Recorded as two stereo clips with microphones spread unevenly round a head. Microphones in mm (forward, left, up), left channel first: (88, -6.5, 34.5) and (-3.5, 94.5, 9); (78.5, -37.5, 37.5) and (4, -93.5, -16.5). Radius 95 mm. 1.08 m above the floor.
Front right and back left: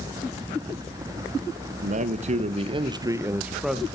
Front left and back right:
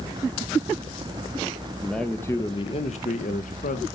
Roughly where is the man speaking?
Behind left.